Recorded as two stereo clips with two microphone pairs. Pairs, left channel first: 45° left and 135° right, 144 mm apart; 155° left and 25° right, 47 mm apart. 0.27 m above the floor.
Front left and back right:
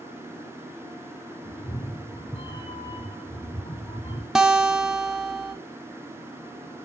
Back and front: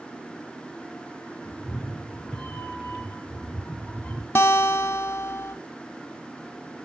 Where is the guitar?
145° left, 0.6 m.